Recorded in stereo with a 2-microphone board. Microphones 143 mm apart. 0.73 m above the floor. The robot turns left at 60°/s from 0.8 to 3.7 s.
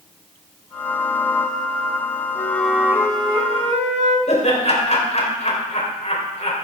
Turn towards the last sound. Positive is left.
turn(degrees=50)  # may be behind; listen again after turning